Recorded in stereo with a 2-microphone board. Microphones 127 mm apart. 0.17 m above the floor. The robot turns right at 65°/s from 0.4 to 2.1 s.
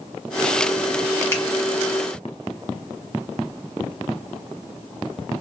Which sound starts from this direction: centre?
A finger snap, at 1.3 s.